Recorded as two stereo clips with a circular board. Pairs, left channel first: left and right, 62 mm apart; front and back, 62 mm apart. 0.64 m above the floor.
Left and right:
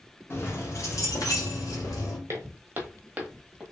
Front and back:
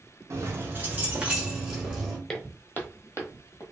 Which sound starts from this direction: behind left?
Keys jangling, at 0.3 s.